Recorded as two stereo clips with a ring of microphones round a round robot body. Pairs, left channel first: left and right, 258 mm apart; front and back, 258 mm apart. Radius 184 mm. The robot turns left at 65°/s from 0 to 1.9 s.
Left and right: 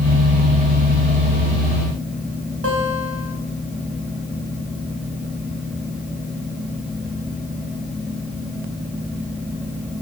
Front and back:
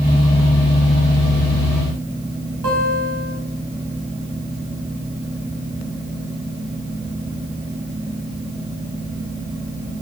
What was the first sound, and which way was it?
A guitar, 130° right.